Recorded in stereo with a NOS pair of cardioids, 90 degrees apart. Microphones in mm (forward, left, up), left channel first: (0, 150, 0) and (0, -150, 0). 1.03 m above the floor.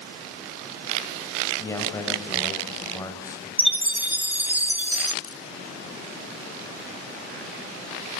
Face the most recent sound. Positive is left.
turn(degrees=50)